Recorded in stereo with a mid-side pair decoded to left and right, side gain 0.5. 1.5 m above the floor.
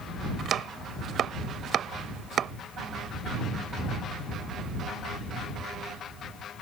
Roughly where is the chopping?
Ahead right.